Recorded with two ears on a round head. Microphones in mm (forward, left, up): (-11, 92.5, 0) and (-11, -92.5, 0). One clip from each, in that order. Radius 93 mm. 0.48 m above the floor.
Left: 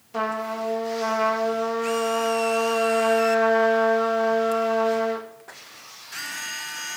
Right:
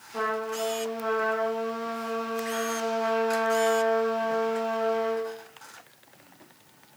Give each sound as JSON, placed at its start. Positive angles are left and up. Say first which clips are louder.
{"t": 0.1, "sound": "a trumpet", "louder": "left 2 dB", "side_deg": 35, "distance_m": 0.5}